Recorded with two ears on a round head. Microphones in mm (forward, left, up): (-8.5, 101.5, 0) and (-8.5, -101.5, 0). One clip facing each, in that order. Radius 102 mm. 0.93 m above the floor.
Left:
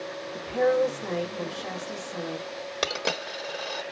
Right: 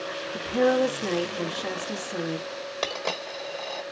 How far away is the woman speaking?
About 1.7 m.